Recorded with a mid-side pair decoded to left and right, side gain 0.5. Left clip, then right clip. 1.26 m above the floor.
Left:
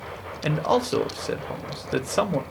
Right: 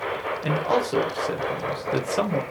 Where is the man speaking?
25° left, 0.8 m.